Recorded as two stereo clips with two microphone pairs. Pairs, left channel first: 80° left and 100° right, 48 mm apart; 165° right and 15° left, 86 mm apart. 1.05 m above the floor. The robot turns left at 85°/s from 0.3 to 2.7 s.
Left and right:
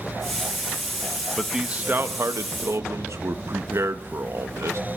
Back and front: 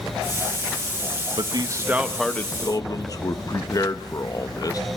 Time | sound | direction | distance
1.4 | a man speaking | 5° right | 1.2 m